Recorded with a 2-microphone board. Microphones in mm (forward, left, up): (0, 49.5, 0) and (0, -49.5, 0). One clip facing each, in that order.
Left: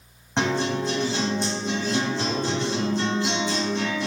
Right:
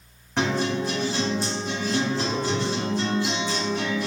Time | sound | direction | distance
0.4 | a guitar | 25° left (ahead or behind) | 2.0 m